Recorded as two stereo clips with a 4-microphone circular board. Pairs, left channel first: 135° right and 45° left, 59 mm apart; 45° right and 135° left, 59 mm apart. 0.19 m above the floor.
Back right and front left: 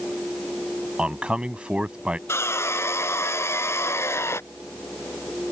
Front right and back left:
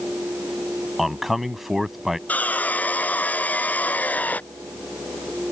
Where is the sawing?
105° right.